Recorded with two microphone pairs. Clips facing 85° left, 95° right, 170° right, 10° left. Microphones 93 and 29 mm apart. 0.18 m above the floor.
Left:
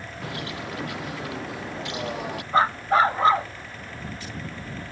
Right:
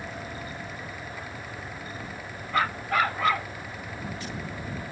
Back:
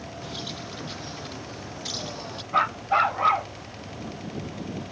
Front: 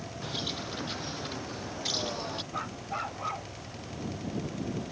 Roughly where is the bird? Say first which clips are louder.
Left 4 dB, front 2 dB; left.